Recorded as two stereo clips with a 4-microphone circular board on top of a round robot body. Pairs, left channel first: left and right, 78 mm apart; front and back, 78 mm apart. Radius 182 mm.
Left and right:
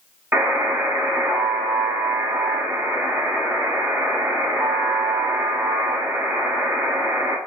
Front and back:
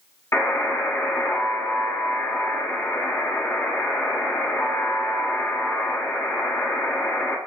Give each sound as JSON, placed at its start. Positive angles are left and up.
{"t": 0.3, "sound": "a buzzer", "azimuth_deg": -40, "distance_m": 1.7}